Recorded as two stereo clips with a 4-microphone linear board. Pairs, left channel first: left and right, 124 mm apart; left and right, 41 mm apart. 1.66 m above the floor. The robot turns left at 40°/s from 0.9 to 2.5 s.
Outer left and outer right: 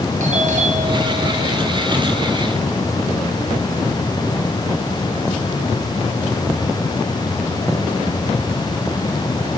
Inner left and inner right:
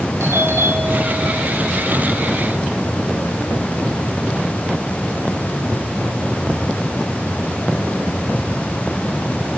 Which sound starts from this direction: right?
A doorbell, at 0.2 s.